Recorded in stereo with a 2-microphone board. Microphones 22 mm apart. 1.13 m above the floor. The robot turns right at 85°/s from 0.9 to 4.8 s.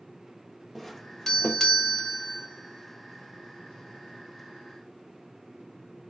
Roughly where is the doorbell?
Centre.